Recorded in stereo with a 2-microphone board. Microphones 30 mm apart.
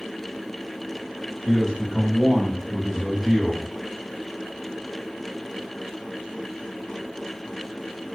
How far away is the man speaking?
About 1.4 m.